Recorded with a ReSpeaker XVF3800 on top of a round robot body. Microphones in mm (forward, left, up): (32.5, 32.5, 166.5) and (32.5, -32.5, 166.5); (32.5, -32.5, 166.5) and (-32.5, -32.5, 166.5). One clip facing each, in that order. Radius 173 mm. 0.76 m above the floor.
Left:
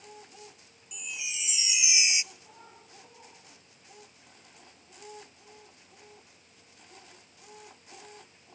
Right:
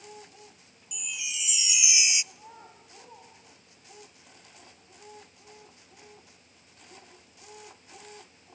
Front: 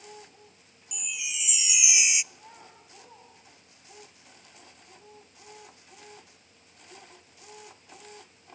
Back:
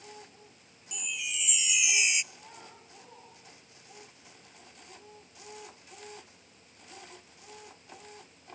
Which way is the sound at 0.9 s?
75° left.